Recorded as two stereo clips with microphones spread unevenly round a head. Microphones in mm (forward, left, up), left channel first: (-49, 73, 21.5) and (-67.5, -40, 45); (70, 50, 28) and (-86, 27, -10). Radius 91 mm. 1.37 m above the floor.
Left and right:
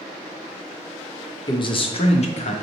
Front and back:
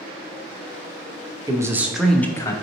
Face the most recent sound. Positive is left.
turn(degrees=80)